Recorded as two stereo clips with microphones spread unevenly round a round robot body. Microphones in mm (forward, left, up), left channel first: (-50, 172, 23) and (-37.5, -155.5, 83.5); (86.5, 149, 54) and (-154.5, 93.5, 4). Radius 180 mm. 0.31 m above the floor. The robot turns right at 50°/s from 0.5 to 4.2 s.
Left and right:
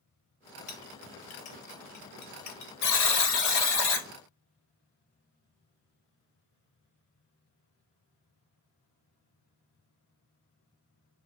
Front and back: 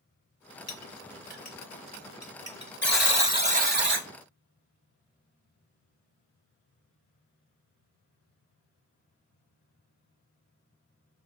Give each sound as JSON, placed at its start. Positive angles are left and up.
{"t": 0.7, "sound": "a clink", "azimuth_deg": 35, "distance_m": 1.0}
{"t": 2.8, "sound": "a buzzer", "azimuth_deg": 95, "distance_m": 1.3}